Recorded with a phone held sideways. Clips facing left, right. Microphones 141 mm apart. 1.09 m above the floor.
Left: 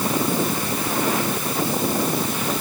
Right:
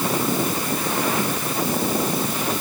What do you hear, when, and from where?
Only background noise.